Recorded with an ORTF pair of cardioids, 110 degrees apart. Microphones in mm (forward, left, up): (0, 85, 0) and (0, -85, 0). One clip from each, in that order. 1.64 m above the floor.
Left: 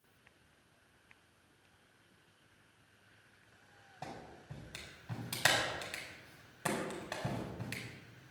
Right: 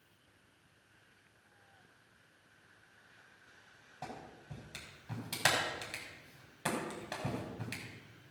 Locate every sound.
4.0 s a clap: straight ahead, 5.5 m